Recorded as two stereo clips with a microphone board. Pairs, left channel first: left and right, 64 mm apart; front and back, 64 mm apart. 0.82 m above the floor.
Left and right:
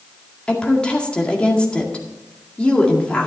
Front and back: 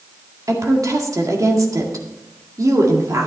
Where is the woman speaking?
160° left, 1.9 m.